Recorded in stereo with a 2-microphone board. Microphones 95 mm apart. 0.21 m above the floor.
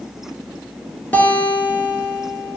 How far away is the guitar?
About 0.6 m.